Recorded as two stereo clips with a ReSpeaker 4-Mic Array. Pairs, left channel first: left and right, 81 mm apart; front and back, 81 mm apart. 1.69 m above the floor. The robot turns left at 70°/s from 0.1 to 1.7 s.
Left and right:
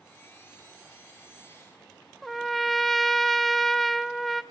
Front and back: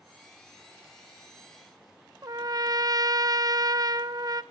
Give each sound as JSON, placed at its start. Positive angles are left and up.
{"t": 2.2, "sound": "a trumpet", "azimuth_deg": 175, "distance_m": 0.7}